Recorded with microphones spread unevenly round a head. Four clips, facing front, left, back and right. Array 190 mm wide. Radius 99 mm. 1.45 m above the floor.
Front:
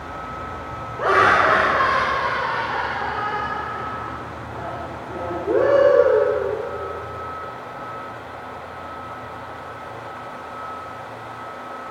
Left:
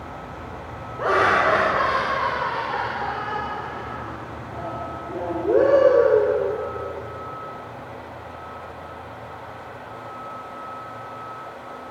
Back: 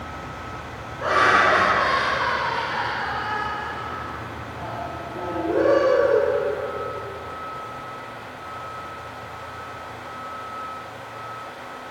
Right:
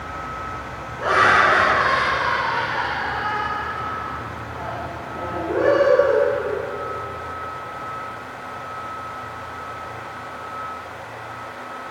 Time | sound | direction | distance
1.0 | laughter | 20° left | 3 m